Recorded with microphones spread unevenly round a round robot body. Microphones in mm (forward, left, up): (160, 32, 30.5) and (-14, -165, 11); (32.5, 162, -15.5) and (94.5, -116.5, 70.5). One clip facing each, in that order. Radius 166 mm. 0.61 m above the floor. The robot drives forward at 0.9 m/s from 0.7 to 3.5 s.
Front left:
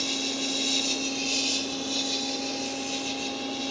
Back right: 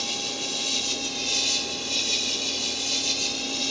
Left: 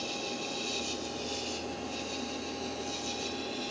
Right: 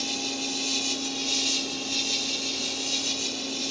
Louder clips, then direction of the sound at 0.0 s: Front left 4 dB, right 4 dB; 60° right.